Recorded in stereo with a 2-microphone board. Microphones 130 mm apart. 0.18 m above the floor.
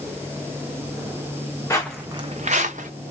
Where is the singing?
I don't hear singing.